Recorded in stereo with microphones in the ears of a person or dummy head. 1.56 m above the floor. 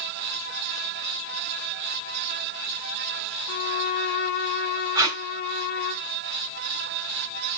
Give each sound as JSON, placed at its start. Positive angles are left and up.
{"t": 3.5, "sound": "a violin", "side_deg": 55, "distance_m": 1.1}
{"t": 5.0, "sound": "tape being pulled", "side_deg": -15, "distance_m": 2.5}